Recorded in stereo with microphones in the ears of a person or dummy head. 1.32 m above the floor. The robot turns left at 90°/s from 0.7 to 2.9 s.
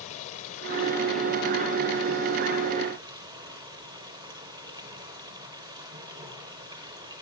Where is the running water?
50° left, 3 m; by 7.2 s 145° right, 3 m.